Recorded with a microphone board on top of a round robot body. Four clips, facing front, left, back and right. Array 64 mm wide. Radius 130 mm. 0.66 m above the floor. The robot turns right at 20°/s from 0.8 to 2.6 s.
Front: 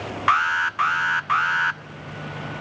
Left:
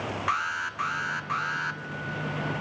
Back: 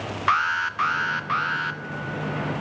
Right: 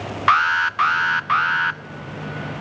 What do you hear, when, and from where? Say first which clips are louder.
0.3 s an alarm: right 14 dB, front 2 dB; 80° right, 1.1 m; by 1.8 s 60° right, 1.1 m